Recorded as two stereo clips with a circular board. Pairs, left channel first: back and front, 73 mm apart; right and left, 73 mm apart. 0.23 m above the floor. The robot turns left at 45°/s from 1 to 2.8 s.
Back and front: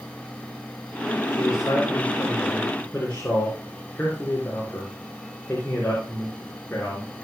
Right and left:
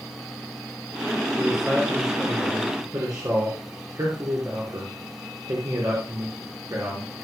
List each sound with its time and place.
1.3 s a man speaking: 175° right, 3.5 m; by 7.1 s 120° left, 3.5 m